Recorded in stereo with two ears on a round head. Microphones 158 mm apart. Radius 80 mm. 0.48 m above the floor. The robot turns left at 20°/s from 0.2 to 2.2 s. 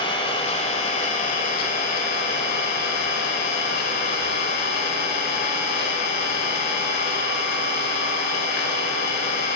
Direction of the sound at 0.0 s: 145° left.